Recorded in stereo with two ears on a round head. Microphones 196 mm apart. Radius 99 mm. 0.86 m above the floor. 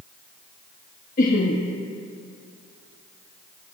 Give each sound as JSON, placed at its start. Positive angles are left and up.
{"t": 1.2, "sound": "laughter", "side_deg": 35, "distance_m": 1.4}